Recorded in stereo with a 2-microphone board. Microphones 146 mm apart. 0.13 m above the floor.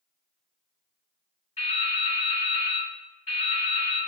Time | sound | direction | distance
1.6 | dripping | 65° left (ahead or behind) | 1.2 m